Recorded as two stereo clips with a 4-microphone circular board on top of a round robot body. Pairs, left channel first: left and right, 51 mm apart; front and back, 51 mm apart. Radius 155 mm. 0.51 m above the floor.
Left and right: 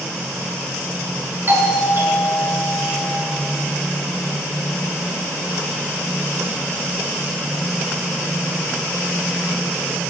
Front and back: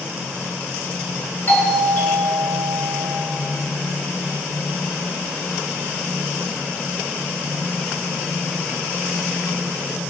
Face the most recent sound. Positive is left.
turn(degrees=-45)